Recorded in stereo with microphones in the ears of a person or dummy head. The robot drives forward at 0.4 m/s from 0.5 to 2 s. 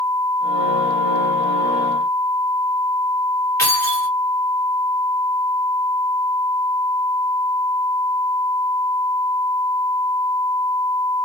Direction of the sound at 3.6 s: 15° left (ahead or behind).